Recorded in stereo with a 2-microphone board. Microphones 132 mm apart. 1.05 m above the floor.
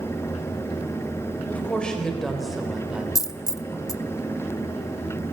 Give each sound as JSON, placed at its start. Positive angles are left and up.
{"t": 1.5, "sound": "a woman speaking", "side_deg": 10, "distance_m": 4.0}
{"t": 3.1, "sound": "a dropped coin", "side_deg": 25, "distance_m": 0.5}